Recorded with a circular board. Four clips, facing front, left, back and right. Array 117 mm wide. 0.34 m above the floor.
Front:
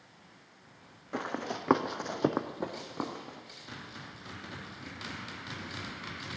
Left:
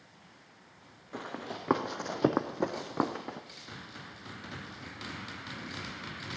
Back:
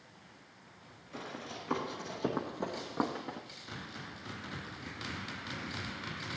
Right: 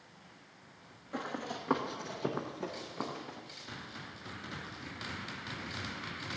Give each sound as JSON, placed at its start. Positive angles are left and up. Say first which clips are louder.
{"t": 1.1, "sound": "running footsteps", "louder": "right 1 dB, front 8 dB", "azimuth_deg": 0, "distance_m": 1.1}